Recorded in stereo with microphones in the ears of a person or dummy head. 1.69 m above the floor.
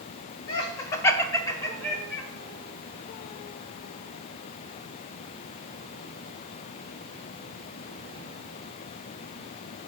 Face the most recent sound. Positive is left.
turn(degrees=15)  # may be behind; listen again after turning